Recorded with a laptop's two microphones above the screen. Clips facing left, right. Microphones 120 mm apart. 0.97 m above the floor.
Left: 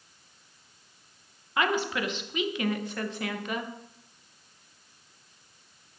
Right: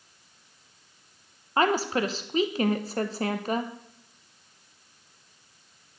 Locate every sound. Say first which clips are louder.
1.6 s a woman speaking: right 4 dB; 35° right (ahead or behind), 0.6 m